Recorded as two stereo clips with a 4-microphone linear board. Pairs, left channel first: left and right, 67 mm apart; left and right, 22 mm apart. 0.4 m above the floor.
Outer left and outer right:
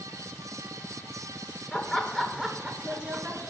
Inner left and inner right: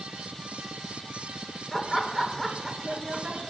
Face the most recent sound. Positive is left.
turn(degrees=-25)  # may be behind; listen again after turning